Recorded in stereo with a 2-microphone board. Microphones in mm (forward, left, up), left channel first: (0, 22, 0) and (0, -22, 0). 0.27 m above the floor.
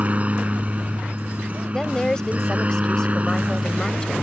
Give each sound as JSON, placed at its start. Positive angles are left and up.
{"t": 0.0, "sound": "a helicopter", "side_deg": -35}
{"t": 1.7, "sound": "a woman speaking", "side_deg": 15}